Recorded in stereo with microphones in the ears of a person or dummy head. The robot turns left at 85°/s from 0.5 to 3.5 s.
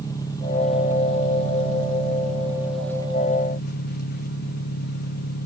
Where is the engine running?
15° left, 1.2 m; by 5.5 s 120° left, 1.2 m.